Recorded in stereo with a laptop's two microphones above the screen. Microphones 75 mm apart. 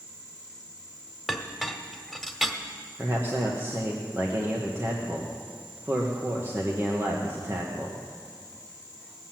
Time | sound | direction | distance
1.3 | a clink | 5° right (ahead or behind) | 1.5 m
3.0 | a man speaking | 30° right (ahead or behind) | 1.1 m